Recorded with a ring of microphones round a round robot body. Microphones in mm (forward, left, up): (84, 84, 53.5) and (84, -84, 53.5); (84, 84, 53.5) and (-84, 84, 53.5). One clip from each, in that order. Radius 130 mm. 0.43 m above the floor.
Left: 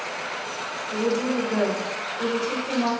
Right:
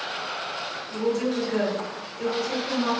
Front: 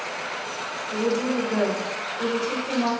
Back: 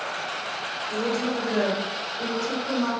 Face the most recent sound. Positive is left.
turn(degrees=130)